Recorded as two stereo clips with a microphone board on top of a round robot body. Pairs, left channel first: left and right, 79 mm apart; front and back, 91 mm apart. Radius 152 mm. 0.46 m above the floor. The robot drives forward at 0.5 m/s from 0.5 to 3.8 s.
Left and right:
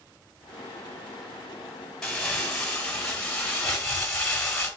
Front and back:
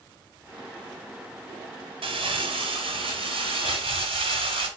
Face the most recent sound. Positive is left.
turn(degrees=175)